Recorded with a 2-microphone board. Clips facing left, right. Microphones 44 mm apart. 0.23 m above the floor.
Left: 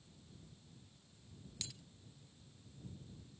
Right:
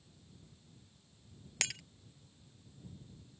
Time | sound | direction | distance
1.6 | breaking glass | 70° right (ahead or behind) | ?